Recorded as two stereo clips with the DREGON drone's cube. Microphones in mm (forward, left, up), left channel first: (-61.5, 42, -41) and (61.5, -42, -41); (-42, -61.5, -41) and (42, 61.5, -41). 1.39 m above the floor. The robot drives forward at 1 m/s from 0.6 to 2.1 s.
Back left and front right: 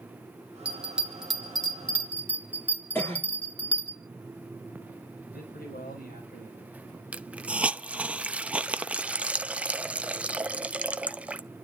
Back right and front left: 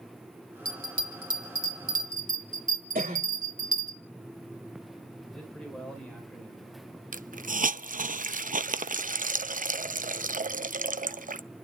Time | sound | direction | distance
0.7 | a bell | 45° left | 4 m
3.0 | a cough | 70° left | 3 m
5.3 | a man speaking | 150° left | 5 m
7.1 | a hiss | 45° left | 0.6 m